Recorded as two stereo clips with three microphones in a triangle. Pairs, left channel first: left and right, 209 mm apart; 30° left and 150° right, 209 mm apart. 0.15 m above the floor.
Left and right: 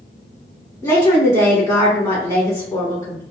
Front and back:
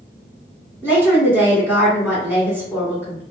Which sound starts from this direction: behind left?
A woman speaking, at 0.8 s.